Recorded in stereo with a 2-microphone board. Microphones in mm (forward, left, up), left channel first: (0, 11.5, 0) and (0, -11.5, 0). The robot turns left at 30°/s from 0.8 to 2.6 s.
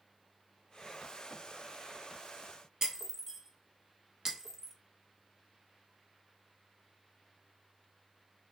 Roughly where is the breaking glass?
Centre.